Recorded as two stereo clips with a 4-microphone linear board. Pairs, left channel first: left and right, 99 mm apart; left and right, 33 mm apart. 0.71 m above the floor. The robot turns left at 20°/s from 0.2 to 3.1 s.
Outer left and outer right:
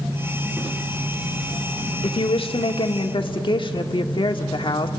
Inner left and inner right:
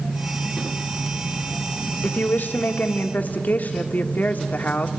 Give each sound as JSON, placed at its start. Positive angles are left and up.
{"t": 2.0, "sound": "a woman speaking", "side_deg": 65, "distance_m": 1.5}